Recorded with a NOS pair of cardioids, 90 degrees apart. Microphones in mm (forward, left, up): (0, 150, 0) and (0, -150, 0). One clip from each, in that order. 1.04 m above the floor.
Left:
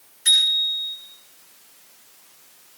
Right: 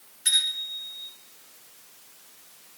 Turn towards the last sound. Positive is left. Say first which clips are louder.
# left 7 dB
turn(degrees=0)